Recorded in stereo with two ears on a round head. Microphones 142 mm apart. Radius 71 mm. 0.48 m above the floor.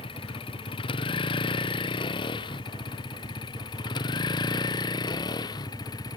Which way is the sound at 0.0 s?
35° left (ahead or behind).